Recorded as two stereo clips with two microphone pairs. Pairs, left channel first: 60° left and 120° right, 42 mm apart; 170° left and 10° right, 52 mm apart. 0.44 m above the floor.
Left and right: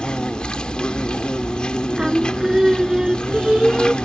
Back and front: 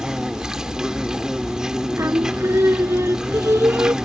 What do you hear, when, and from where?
0.0 s an insect: 45° left
2.0 s singing: 40° right